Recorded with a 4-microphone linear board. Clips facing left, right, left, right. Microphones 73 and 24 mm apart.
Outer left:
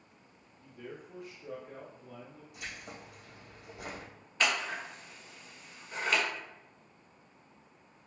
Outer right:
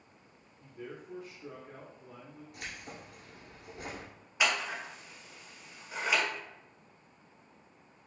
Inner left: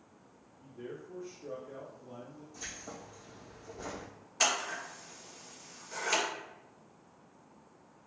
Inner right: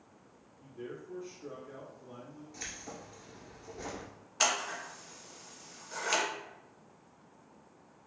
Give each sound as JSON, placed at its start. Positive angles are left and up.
{"t": 0.6, "sound": "a man speaking", "side_deg": -45, "distance_m": 1.9}
{"t": 2.5, "sound": "keys jangling", "side_deg": -60, "distance_m": 1.7}
{"t": 4.4, "sound": "scissors", "side_deg": -15, "distance_m": 1.5}